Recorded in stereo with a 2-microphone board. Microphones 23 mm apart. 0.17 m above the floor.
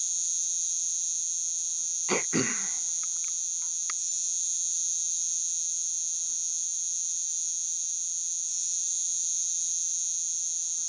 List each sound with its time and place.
0.0 s an insect: 35° left (ahead or behind)
2.1 s throat clearing: 25° left (ahead or behind)